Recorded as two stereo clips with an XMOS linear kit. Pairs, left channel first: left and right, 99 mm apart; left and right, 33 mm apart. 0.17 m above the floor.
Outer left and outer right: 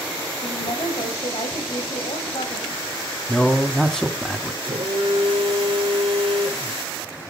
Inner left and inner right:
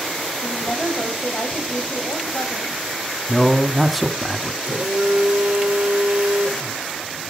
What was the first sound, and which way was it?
A woman speaking, 80° left.